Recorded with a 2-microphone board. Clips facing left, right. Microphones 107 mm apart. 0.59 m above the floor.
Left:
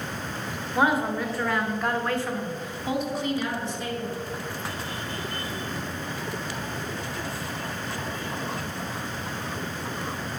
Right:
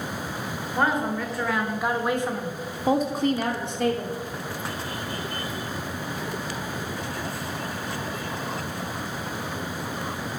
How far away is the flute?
No flute in this recording.